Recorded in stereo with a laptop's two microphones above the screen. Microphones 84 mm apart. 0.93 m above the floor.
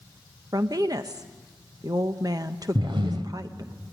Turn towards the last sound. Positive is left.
turn(degrees=-75)  # may be behind; listen again after turning